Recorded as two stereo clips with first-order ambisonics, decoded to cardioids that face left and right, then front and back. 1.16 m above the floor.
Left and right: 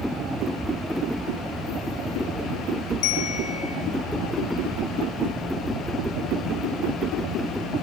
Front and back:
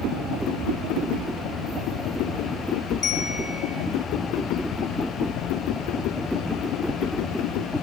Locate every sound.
3.0 s a bell: 65° left, 7.5 m